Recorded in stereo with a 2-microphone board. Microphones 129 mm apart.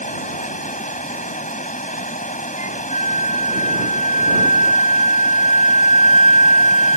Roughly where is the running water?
Left.